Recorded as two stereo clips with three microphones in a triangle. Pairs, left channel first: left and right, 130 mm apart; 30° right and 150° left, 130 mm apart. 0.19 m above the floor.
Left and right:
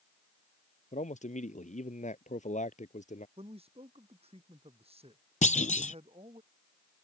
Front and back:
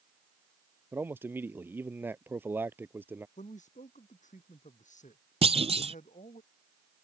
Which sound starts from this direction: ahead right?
A man speaking, at 3.4 s.